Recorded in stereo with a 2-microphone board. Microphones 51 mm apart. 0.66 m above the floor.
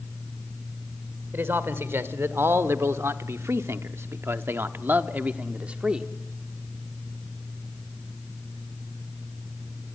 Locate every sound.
1.3 s a man speaking: 50° right (ahead or behind), 2.0 m; by 6.1 s 20° right (ahead or behind), 1.3 m